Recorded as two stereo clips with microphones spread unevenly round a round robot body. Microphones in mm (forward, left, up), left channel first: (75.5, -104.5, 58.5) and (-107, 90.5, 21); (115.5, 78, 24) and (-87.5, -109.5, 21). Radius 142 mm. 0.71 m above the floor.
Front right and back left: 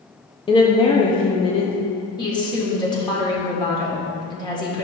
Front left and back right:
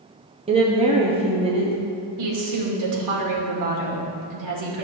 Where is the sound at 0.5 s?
110° right, 0.9 m.